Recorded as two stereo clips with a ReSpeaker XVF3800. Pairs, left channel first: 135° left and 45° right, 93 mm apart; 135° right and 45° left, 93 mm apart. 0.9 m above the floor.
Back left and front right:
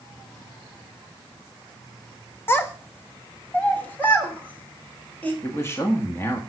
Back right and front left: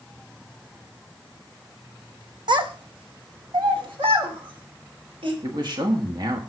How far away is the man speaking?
About 1.6 m.